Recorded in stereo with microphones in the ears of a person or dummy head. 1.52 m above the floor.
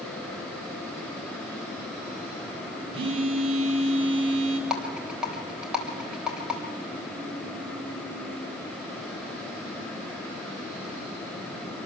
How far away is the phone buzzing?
About 4 m.